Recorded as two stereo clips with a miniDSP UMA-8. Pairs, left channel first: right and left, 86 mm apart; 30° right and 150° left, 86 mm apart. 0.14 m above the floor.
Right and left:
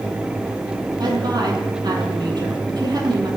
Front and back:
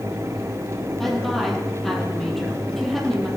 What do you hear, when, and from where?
1.0 s a woman speaking: 60° left, 4.5 m